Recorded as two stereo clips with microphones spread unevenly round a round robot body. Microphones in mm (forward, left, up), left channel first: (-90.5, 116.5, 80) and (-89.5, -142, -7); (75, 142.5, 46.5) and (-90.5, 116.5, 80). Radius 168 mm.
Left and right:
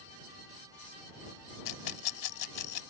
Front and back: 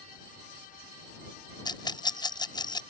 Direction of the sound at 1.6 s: 70° left.